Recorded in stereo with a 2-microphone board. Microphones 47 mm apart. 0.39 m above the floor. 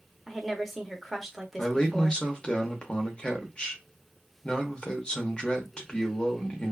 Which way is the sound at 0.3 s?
5° left (ahead or behind).